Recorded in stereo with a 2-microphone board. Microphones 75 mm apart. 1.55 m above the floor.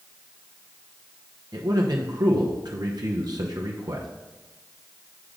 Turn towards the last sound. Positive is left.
turn(degrees=-65)  # may be behind; listen again after turning